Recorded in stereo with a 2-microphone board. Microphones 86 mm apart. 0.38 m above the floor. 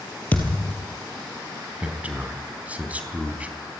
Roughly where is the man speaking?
Centre.